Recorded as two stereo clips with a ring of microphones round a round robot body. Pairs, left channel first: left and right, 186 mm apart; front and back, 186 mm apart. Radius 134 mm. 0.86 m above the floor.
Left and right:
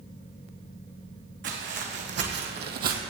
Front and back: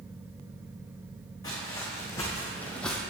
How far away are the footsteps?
About 2.5 m.